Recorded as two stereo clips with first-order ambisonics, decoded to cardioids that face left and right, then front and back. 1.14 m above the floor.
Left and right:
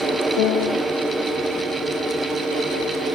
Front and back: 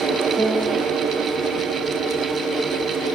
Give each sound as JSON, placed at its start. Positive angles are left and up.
{"t": 0.4, "sound": "a piano", "azimuth_deg": 95, "distance_m": 2.5}